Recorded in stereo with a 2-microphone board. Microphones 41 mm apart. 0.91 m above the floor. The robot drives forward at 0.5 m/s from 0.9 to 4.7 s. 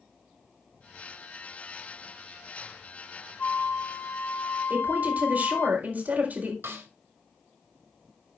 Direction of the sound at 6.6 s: 85° right.